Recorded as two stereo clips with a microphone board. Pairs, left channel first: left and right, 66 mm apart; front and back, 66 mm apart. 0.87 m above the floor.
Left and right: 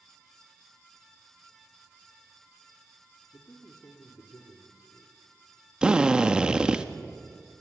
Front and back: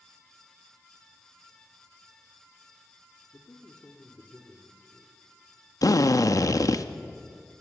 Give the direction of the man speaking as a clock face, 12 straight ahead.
10 o'clock.